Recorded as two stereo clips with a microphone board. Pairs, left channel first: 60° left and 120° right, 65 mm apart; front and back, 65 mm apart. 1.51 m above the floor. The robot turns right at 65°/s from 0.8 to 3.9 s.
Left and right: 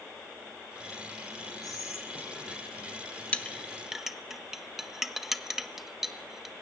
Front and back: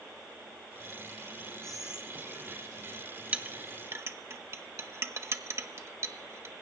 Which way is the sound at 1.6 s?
80° left.